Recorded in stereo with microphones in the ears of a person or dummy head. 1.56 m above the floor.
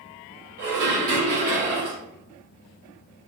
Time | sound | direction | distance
0.6 | dishes clattering | 55° right (ahead or behind) | 2.0 m